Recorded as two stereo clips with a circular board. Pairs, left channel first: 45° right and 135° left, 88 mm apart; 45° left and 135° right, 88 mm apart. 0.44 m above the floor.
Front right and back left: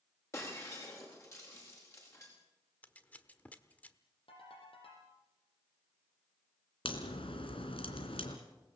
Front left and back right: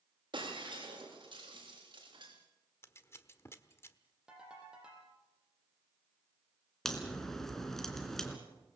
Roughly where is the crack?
Ahead right.